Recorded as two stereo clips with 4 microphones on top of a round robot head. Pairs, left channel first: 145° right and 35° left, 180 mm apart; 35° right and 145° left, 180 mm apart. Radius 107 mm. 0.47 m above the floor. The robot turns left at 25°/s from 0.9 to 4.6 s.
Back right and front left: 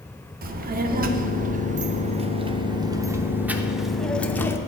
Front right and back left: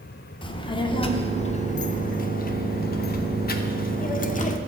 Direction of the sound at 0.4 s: 20° left.